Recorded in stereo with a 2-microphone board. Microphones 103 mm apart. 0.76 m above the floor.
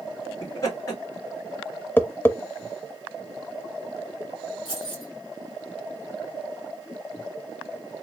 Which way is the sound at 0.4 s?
35° left (ahead or behind).